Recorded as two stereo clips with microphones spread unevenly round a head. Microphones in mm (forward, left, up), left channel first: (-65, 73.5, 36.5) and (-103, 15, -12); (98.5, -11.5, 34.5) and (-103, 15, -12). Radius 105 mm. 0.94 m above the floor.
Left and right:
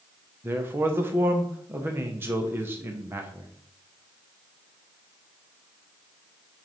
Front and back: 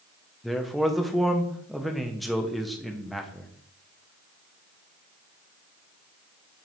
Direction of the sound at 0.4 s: 105° right.